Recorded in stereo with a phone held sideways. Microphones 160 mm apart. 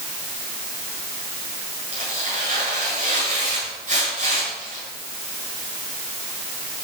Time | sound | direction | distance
1.9 | tearing paper | 45° right (ahead or behind) | 7.5 m